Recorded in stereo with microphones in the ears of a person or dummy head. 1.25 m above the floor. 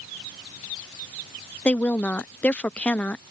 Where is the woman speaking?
10° left (ahead or behind).